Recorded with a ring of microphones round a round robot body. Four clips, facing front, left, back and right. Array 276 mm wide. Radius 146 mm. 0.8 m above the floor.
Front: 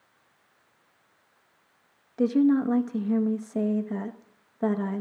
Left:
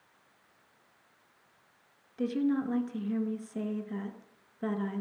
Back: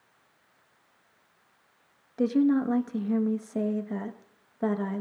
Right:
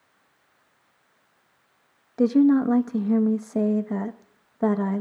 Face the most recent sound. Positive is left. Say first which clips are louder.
# right 12 dB, front 2 dB
turn(degrees=-90)